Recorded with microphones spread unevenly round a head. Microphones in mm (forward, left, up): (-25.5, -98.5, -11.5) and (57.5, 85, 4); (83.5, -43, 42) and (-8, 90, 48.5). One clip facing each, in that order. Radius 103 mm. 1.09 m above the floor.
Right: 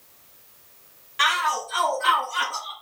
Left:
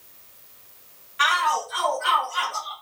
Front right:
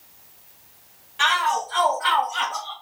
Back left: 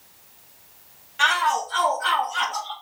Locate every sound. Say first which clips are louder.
1.2 s a shout: left 2 dB, even; 145° right, 1.3 m; by 2.7 s 140° right, 3 m